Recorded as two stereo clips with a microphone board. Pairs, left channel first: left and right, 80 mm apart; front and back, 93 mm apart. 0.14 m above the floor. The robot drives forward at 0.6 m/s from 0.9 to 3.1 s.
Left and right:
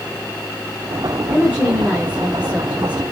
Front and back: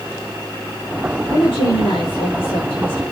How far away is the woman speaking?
About 7 m.